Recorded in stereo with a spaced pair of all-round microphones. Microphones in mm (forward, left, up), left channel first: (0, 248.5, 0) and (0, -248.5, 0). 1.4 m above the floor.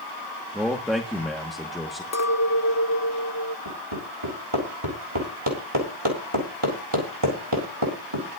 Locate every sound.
0.5 s a man speaking: centre (ahead or behind), 1.1 m
2.1 s a clink: 35° left (ahead or behind), 0.8 m
3.6 s hammering: 75° right (ahead or behind), 4 m